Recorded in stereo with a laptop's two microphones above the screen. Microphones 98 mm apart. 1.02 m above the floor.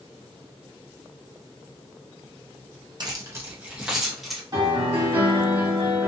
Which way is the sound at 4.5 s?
45° right (ahead or behind).